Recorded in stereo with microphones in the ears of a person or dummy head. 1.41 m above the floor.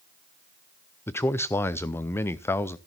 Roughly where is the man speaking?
Centre.